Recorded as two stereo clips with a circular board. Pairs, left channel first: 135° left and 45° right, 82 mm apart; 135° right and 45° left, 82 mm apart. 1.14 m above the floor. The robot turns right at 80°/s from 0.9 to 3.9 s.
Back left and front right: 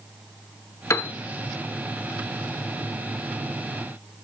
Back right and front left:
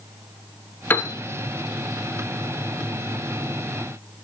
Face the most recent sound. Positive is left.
turn(degrees=50)